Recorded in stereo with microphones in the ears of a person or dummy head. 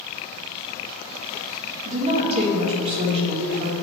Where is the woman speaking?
30° right (ahead or behind), 1.9 m.